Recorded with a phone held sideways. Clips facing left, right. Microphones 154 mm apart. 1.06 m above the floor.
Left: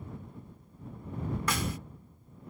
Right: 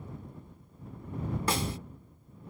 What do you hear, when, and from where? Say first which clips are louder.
1.5 s a snare drum: right 3 dB; 30° right (ahead or behind)